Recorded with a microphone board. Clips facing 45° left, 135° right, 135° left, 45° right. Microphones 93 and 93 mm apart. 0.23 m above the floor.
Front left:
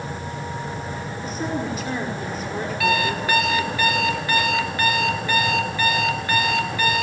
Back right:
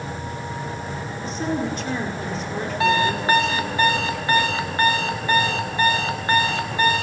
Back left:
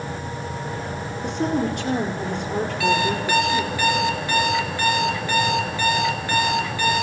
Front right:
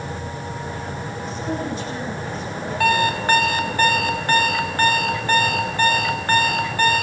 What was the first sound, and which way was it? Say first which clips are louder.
A woman speaking: back right 2 dB, back left 5 dB; 135° left.